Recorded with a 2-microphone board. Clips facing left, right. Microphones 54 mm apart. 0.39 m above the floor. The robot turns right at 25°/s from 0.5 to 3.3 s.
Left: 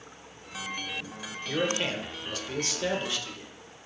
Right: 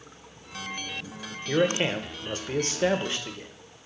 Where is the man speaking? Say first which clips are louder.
Right 5 dB; 120° right, 1.1 m; by 3.5 s 75° right, 1.1 m.